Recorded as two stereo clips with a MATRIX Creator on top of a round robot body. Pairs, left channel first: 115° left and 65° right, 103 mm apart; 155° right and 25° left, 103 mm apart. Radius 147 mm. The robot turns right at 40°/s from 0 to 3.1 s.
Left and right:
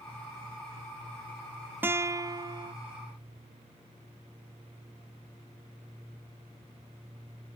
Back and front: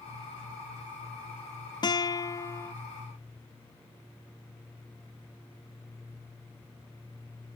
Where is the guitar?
130° right, 0.6 m; by 2.7 s 95° right, 0.6 m.